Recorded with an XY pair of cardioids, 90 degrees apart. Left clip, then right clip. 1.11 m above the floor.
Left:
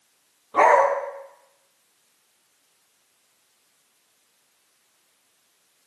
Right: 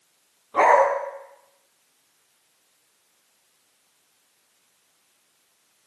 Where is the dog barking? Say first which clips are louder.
Even; 15° left, 5 m.